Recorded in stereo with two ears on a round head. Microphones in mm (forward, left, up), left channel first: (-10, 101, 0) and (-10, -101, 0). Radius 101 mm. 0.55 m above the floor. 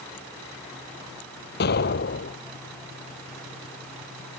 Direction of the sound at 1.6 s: 50° left (ahead or behind).